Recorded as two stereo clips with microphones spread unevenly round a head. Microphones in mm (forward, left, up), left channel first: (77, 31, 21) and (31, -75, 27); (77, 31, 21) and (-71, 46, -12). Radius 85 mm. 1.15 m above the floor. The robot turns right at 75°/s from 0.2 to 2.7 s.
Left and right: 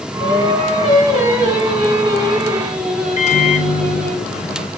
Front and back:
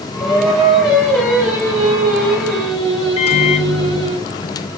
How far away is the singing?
About 3.5 m.